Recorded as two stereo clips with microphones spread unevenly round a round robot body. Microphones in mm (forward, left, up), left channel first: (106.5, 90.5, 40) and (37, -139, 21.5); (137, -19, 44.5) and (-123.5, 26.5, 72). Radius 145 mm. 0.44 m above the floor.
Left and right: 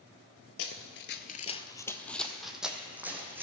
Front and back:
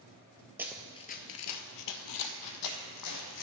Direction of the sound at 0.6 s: 95° left.